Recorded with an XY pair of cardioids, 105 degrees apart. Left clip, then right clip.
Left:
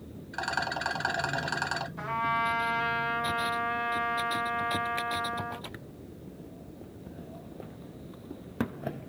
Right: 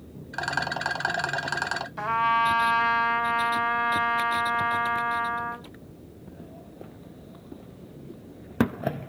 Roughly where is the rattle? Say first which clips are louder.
Right 3 dB; ahead right.